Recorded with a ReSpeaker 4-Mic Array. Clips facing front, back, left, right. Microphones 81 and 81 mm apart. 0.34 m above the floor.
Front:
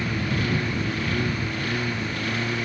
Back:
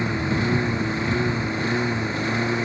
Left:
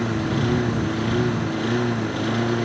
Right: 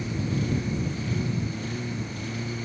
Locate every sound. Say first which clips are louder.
0.0 s a lawn mower: back 3 dB, left 7 dB; 115° left